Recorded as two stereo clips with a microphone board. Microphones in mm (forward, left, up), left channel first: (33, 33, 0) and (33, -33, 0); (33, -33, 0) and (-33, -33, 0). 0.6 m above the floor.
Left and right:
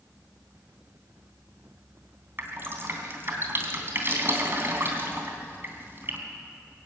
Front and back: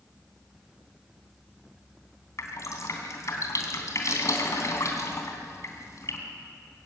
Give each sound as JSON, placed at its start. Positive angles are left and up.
{"t": 2.4, "sound": "dripping", "azimuth_deg": -35, "distance_m": 3.0}